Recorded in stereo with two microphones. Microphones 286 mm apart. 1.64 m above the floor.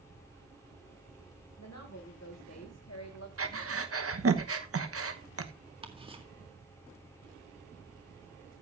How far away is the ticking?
About 1.9 m.